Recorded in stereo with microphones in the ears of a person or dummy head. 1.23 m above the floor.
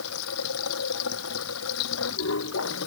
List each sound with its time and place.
0.0 s running water: 75° left (ahead or behind)